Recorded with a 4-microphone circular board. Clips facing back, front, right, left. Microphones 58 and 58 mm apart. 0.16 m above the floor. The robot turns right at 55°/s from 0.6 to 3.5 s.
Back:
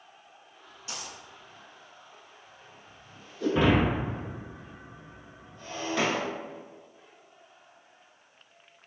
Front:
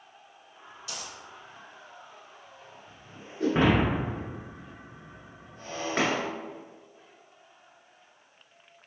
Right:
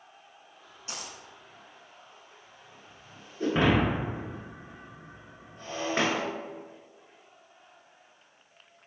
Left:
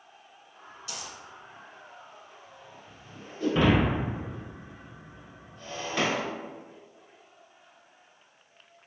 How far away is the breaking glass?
About 1.3 m.